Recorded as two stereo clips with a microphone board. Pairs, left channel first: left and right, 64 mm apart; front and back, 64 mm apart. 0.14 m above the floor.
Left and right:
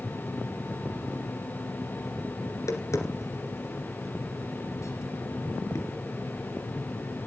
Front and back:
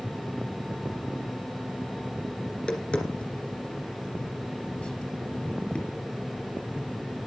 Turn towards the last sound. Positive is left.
turn(degrees=70)